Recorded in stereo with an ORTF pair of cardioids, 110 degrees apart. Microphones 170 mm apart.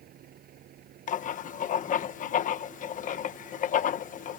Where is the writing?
55° left.